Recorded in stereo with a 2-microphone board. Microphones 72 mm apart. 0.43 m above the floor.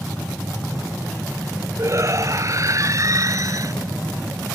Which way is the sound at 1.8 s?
45° right (ahead or behind).